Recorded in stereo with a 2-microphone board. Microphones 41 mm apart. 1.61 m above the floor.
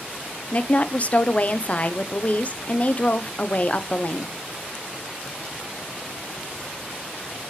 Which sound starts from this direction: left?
A woman speaking, at 0.5 s.